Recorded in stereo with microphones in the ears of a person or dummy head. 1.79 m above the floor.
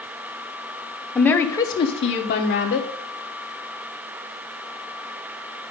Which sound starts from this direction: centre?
A woman speaking, at 1.1 s.